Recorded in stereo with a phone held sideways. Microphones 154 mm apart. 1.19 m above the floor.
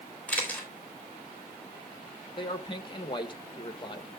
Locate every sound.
0.3 s a camera shutter: 10° left (ahead or behind), 3.5 m
2.4 s a man speaking: 35° left (ahead or behind), 1.2 m